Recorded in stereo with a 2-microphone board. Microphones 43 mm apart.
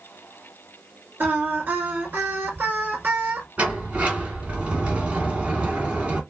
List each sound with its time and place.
1.2 s singing: 45° right (ahead or behind), 1.6 m
3.6 s a sliding door: 30° right (ahead or behind), 1.7 m